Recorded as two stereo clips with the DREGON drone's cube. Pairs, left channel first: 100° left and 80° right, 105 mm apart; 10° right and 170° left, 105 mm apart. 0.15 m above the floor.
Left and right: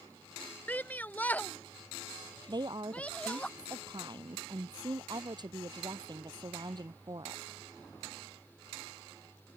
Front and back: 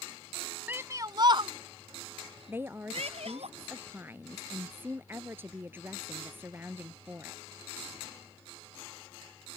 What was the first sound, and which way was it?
A shout, 140° left.